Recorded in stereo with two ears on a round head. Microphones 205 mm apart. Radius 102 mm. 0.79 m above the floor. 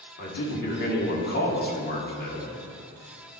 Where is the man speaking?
45° left (ahead or behind), 1.9 m.